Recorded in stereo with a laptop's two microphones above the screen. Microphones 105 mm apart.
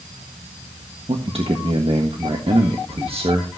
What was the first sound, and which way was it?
A man speaking, 65° right (ahead or behind).